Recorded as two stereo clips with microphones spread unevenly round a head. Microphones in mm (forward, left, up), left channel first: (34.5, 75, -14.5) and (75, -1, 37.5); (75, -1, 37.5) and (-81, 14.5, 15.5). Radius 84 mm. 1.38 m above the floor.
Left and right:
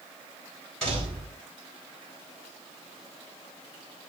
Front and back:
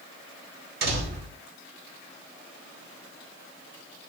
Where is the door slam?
150° right, 4.5 m.